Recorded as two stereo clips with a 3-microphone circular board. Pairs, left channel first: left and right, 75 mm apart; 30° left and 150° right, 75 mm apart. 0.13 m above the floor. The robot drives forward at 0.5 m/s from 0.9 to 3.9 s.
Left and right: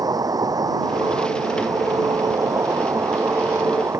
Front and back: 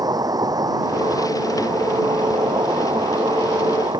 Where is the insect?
120° right; by 4.0 s 135° right.